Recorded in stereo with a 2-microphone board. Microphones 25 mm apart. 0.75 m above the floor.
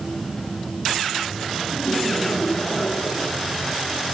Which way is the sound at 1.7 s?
65° left (ahead or behind).